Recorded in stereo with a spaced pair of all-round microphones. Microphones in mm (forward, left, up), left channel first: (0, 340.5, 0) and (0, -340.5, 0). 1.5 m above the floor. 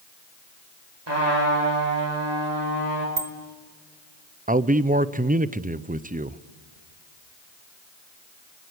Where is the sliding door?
I don't hear a sliding door.